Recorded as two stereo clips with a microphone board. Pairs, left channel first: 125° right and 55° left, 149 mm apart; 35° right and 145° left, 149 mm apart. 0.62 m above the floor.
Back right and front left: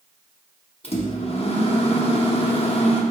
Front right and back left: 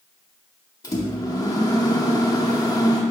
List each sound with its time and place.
0.8 s a microwave: 90° right, 0.6 m